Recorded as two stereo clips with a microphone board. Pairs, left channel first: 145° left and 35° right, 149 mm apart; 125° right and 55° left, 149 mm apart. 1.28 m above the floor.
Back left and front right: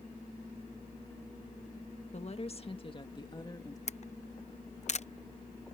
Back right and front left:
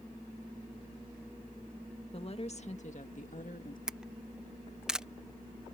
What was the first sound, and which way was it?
A woman speaking, 175° right.